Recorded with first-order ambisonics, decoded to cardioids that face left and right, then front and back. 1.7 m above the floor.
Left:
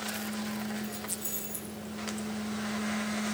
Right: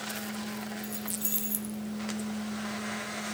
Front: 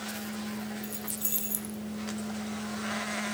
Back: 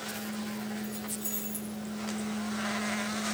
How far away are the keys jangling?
About 1.2 m.